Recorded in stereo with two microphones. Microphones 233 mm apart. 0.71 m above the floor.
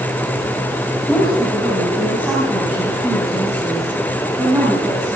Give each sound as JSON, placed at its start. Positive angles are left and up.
{"t": 1.1, "sound": "a woman speaking", "side_deg": 0, "distance_m": 4.5}